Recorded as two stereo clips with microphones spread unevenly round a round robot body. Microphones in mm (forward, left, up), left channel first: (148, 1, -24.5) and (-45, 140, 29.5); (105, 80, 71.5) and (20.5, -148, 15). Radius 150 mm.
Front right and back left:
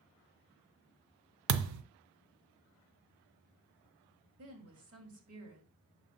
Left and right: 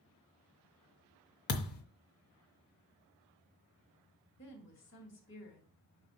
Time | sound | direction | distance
1.5 | a thud | 130° left | 0.7 m
4.4 | a woman speaking | 120° left | 2 m